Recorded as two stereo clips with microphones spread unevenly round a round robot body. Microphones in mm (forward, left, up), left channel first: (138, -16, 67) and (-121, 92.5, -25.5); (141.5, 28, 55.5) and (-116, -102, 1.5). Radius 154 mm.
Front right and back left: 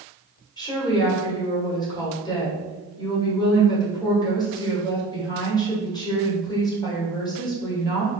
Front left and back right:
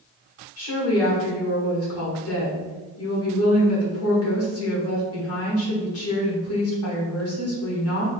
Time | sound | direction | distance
0.6 | a woman speaking | 65° left | 1.7 m